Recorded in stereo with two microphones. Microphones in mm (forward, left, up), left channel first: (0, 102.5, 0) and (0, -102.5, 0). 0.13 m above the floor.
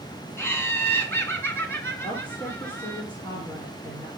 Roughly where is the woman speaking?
Left.